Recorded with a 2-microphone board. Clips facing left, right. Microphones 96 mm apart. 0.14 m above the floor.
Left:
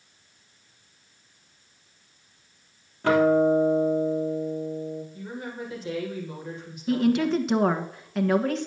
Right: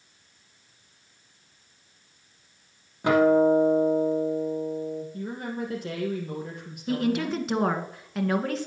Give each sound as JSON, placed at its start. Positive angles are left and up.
{"t": 3.0, "sound": "a guitar", "side_deg": -15, "distance_m": 3.0}
{"t": 5.1, "sound": "a woman speaking", "side_deg": -55, "distance_m": 4.0}
{"t": 6.9, "sound": "a woman speaking", "side_deg": 0, "distance_m": 1.3}